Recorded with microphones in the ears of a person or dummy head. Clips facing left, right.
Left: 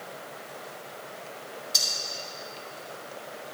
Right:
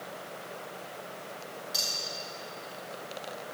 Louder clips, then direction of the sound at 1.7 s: Even; 10° right (ahead or behind).